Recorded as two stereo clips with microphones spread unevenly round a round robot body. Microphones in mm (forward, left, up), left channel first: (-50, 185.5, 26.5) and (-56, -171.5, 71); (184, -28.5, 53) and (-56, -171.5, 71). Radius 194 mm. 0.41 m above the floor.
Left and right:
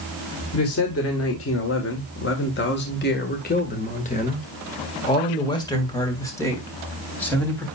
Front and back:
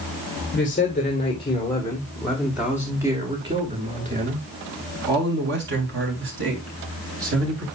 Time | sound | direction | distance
0.5 | a man speaking | 75° left | 1.8 m